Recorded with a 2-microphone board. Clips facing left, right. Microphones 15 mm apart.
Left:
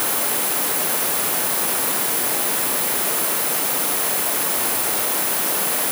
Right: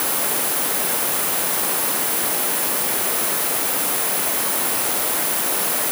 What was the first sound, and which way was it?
Only background noise.